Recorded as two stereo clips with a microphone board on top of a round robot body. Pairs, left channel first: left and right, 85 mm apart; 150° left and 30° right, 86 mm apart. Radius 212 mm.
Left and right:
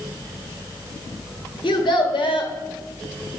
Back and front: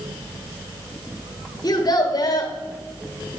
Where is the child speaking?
110° left, 1.7 m.